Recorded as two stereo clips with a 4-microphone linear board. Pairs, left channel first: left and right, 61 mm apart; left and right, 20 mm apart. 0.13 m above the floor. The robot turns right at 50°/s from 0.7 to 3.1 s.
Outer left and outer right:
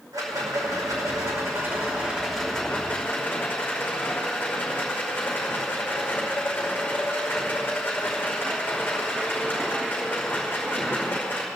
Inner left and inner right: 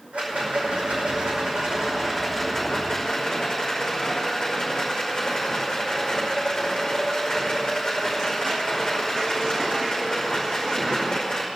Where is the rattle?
85° right, 5.5 m; by 11.4 s 35° left, 5.5 m.